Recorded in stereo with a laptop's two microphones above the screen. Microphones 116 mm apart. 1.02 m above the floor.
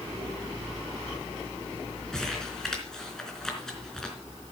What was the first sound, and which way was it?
Crumpling, 5° left (ahead or behind).